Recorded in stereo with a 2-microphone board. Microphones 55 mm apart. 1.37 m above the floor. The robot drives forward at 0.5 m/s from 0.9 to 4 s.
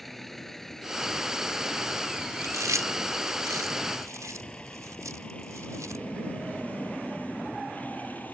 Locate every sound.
0.0 s a vehicle: 5° left (ahead or behind); by 8.4 s 35° left (ahead or behind)
2.4 s chewing: 90° right; by 6.0 s 80° right